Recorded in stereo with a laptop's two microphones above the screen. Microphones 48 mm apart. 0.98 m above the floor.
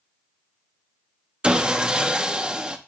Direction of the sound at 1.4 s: 20° right (ahead or behind).